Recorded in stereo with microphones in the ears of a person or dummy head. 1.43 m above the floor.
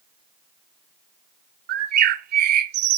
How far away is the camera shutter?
No camera shutter in this recording.